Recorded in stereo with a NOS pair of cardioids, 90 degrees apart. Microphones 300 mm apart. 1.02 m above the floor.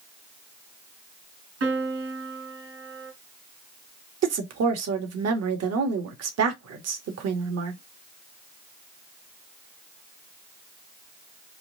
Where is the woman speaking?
55° right, 1.8 m.